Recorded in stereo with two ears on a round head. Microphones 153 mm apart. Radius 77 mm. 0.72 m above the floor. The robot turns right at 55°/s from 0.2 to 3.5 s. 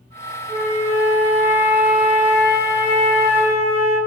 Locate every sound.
0.5 s a flute: 85° right, 1.2 m; by 4.0 s 85° left, 1.2 m